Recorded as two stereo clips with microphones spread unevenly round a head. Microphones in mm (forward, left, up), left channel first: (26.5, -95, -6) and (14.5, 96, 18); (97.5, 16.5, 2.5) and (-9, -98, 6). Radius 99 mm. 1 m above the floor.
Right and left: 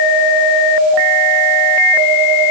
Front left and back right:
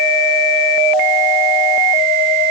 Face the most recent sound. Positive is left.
No sound to turn to.